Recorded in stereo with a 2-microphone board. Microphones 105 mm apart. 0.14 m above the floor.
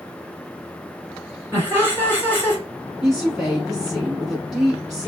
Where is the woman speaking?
5° right (ahead or behind), 1.3 m.